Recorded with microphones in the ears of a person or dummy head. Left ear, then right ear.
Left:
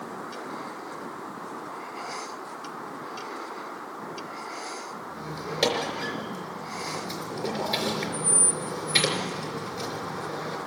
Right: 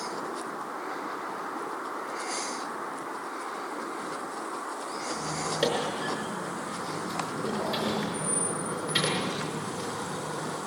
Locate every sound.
5.1 s a squeak: 25° left (ahead or behind), 4 m